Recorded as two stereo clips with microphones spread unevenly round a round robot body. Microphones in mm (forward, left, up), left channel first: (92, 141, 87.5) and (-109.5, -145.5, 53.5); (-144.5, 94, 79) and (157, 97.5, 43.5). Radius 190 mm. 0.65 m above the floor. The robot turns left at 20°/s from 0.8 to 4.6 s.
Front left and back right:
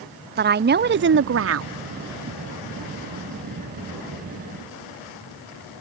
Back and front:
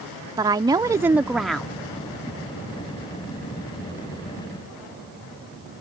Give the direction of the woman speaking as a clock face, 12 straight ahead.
2 o'clock.